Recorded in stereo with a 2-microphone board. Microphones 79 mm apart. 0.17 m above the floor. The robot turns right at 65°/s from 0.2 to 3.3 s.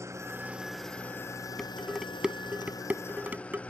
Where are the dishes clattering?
5° left (ahead or behind); by 3.6 s 25° right (ahead or behind).